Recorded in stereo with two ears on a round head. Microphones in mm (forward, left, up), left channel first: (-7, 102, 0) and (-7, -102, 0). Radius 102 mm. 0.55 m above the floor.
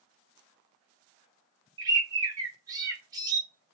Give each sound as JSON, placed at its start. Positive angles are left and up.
{"t": 1.8, "sound": "a bird", "side_deg": -15, "distance_m": 0.6}